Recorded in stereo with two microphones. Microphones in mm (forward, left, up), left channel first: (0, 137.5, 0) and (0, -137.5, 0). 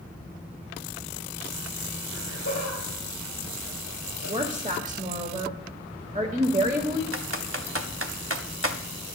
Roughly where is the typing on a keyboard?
Right.